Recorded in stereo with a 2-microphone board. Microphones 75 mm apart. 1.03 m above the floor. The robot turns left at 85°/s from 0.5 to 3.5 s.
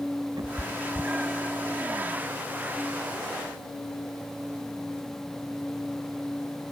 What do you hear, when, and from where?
0.4 s a cat meowing: 65° right (ahead or behind); by 1.6 s 20° left (ahead or behind)